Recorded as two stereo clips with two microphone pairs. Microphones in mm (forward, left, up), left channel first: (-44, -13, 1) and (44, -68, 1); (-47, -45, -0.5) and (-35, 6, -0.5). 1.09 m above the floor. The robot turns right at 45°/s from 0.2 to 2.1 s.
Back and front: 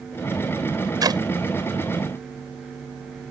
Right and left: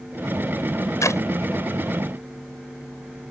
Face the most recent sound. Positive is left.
turn(degrees=-35)